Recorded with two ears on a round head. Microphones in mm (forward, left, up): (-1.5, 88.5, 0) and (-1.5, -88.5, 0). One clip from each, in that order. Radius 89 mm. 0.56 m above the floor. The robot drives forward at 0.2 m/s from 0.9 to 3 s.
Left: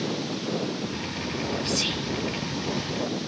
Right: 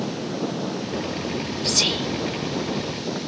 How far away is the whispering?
About 1.4 m.